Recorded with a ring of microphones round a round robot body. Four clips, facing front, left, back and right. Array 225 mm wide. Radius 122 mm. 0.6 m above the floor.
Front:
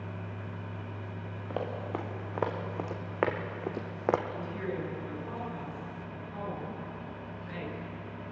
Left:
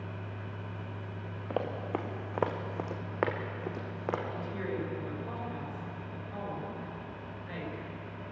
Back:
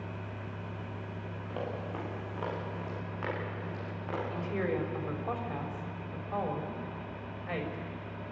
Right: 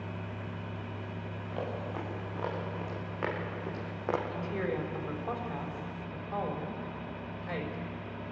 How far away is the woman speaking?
About 3.5 m.